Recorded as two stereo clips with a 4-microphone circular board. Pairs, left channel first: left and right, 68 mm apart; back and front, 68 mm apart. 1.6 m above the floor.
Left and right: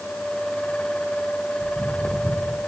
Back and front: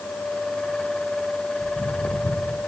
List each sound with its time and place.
1.6 s footsteps: 175° left, 2.5 m